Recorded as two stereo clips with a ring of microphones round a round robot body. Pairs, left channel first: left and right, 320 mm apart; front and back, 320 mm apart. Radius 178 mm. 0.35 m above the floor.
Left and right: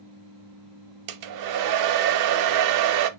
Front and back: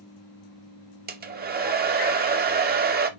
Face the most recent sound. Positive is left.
turn(degrees=-115)